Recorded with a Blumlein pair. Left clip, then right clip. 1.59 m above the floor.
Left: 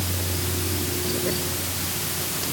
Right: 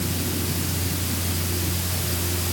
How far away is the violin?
I don't hear a violin.